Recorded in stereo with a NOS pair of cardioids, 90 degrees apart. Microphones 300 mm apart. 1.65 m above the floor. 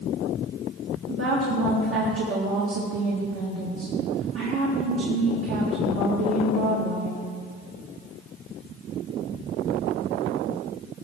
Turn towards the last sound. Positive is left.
turn(degrees=-50)